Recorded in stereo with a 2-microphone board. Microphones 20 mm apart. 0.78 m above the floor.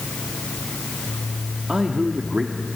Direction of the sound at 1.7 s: 50° right (ahead or behind).